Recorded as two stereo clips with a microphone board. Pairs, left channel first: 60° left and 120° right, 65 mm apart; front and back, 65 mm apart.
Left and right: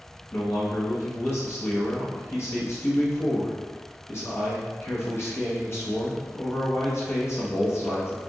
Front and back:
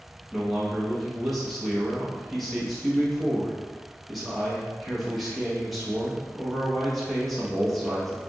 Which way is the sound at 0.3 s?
90° left.